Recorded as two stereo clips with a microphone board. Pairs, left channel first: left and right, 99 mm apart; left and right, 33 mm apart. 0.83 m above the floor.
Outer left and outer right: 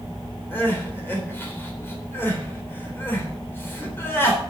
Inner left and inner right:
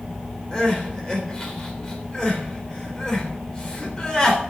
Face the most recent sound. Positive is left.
turn(degrees=25)  # may be behind; listen again after turning